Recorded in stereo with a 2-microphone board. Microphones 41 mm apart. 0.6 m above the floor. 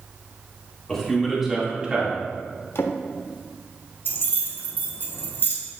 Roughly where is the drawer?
Left.